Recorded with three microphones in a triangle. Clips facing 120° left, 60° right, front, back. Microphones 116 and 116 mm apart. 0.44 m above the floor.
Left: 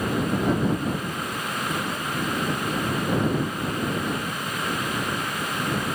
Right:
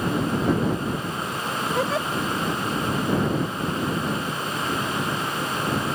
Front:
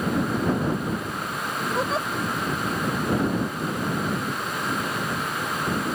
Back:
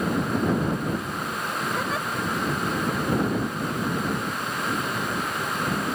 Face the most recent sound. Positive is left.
turn(degrees=-60)